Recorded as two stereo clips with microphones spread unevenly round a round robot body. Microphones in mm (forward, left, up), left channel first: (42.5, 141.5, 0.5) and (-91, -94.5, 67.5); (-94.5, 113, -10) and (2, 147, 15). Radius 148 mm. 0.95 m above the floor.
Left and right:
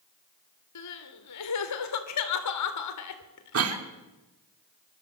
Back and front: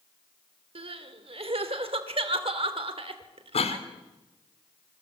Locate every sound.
0.8 s crying: 40° left, 3 m
3.5 s a cough: 155° right, 2.5 m